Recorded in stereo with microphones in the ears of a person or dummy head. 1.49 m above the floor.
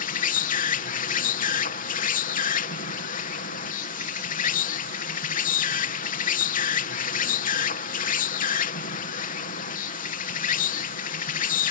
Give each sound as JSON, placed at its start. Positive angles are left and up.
{"t": 0.0, "sound": "an insect", "side_deg": 45}